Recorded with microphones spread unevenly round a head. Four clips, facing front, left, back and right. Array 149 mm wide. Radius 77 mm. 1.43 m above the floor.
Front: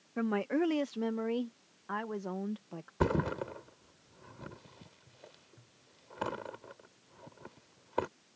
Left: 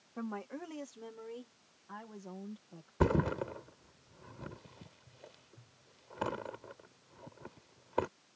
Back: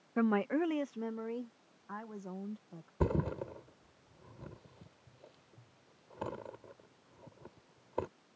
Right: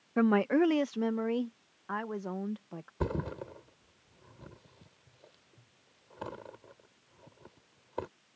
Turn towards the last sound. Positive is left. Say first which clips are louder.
# left 5 dB, front 3 dB
turn(degrees=40)